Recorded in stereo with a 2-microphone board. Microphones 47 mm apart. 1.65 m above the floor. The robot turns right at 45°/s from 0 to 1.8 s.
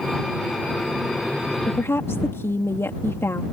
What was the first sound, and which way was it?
A woman speaking, 65° left (ahead or behind).